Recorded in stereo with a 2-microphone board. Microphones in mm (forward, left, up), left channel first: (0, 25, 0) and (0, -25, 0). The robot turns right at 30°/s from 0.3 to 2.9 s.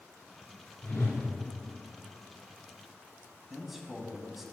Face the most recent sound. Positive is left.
turn(degrees=-5)  # may be behind; listen again after turning